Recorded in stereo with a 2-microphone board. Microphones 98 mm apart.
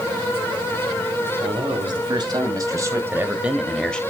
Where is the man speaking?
55° right (ahead or behind), 2.5 m; by 4.0 s 10° left (ahead or behind), 1.2 m.